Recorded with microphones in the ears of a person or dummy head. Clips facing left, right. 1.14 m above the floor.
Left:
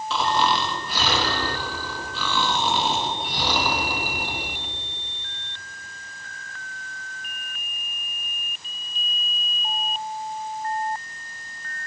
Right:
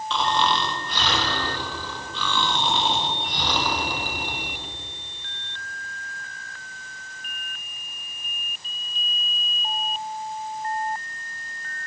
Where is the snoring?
10° left (ahead or behind), 1.6 m.